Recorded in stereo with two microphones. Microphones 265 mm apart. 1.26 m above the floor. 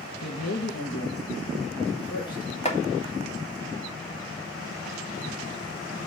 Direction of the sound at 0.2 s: 70° left (ahead or behind).